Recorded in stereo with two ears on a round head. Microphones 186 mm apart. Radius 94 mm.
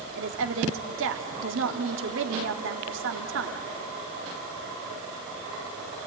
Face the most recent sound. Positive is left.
turn(degrees=-70)  # may be behind; listen again after turning